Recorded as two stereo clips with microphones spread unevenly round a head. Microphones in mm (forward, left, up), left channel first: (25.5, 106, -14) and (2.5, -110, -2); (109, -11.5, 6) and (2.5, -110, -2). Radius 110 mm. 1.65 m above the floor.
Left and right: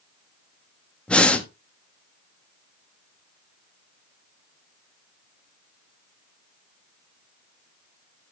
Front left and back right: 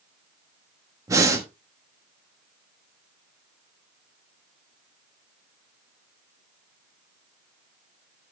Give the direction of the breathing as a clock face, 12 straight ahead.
6 o'clock.